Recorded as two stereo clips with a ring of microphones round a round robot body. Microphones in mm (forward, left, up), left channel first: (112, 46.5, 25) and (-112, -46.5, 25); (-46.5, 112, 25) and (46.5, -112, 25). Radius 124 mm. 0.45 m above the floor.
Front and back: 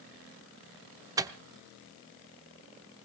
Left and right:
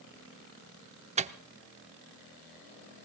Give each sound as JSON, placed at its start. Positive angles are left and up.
{"t": 1.2, "sound": "a microwave", "azimuth_deg": -95, "distance_m": 0.6}